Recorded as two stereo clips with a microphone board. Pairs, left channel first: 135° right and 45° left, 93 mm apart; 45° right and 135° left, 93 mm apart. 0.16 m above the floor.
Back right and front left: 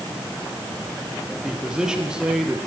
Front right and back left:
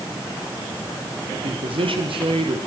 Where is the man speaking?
125° left, 4.5 m.